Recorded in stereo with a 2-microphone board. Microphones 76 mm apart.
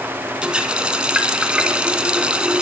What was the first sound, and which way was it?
A running tap, 15° right (ahead or behind).